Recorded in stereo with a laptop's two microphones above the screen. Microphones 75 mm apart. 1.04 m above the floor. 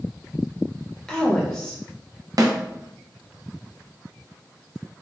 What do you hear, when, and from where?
1.1 s a woman speaking: 10° left (ahead or behind), 0.5 m
2.4 s a snare drum: 55° right (ahead or behind), 0.6 m